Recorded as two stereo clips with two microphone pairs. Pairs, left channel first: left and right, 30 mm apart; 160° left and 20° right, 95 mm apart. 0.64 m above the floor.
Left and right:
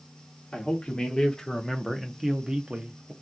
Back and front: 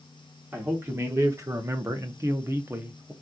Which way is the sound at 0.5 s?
40° left.